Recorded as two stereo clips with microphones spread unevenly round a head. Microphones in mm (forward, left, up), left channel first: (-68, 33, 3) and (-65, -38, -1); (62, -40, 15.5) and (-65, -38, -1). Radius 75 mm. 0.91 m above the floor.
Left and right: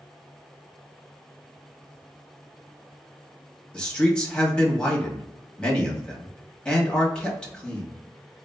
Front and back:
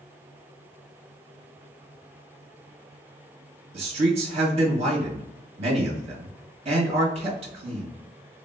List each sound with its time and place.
3.7 s a man speaking: 170° left, 1.1 m